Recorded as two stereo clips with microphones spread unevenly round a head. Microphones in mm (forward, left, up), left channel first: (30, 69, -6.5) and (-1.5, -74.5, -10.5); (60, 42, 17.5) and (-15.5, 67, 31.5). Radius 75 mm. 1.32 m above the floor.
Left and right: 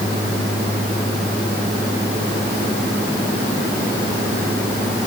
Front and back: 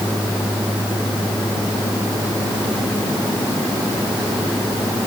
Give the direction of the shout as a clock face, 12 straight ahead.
No shout in this recording.